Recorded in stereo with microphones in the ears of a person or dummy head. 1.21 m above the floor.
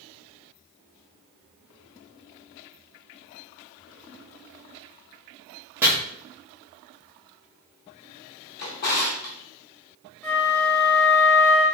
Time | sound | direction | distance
5.8 | chopping | 10° right (ahead or behind) | 0.8 m
8.6 | a drawer | 55° left (ahead or behind) | 1.8 m
10.2 | a flute | 10° left (ahead or behind) | 1.0 m